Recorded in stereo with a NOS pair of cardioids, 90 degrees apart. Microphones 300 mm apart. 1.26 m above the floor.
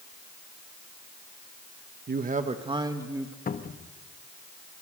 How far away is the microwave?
I don't hear a microwave.